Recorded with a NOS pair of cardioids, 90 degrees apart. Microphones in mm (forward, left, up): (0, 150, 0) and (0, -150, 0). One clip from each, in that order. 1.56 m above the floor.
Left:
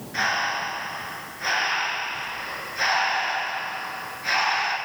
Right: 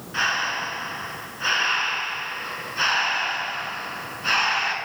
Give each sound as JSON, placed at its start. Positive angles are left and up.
{"t": 0.1, "sound": "breathing", "azimuth_deg": -20, "distance_m": 1.6}